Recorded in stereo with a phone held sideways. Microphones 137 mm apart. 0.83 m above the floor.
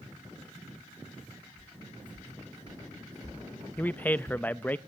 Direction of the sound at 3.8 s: 15° left (ahead or behind).